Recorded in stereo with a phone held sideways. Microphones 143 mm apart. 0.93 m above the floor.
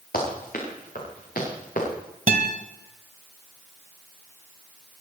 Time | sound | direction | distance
0.1 | running footsteps | 85° left | 7 m
2.3 | a guitar | 70° right (ahead or behind) | 1.5 m